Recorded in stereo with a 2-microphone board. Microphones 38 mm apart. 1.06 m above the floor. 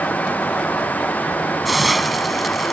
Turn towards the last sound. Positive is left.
turn(degrees=0)  # may be behind; listen again after turning